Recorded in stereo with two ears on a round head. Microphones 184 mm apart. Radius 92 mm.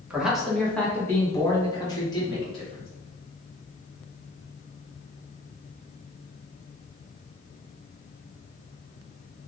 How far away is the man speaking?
About 1.3 m.